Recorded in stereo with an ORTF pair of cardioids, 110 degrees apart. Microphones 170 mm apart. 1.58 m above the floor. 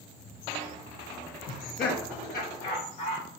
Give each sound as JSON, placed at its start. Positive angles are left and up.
{"t": 1.5, "sound": "laughter", "azimuth_deg": 55, "distance_m": 1.0}